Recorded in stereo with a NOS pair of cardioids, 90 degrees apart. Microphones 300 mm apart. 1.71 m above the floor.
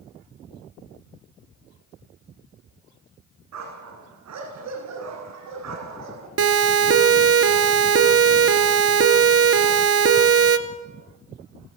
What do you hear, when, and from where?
3.5 s a dog barking: 65° right, 9 m
6.4 s a siren: 55° right, 2.5 m